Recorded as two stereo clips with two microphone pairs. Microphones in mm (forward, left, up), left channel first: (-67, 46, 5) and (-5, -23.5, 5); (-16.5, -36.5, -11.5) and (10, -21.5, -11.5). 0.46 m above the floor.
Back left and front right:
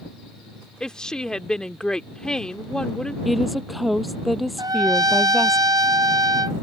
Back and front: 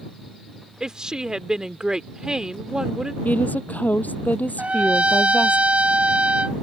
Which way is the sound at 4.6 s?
10° right.